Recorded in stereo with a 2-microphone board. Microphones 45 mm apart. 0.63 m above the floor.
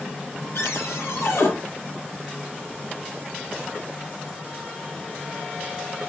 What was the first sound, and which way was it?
A cupboard door, 85° left.